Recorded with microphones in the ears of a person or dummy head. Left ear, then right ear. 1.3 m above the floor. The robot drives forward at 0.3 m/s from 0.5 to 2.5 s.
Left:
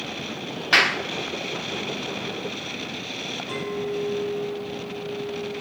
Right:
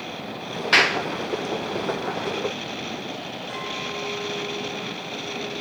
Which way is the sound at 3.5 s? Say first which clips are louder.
Even; 10° left (ahead or behind).